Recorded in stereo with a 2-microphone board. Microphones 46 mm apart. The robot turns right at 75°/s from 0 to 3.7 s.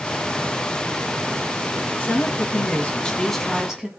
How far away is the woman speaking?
About 1.5 m.